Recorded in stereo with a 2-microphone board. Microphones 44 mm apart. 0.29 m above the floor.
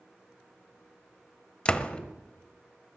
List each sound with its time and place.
1.6 s a door slam: 20° left (ahead or behind), 1.0 m